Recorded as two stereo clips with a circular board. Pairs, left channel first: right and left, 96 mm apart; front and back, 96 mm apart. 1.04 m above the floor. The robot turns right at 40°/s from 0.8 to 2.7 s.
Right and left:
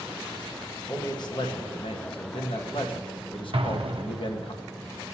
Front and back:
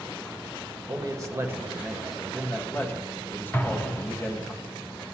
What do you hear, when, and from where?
0.9 s a man speaking: 140° right, 1.3 m; by 4.5 s 65° right, 1.3 m
3.5 s an explosion: 70° left, 0.8 m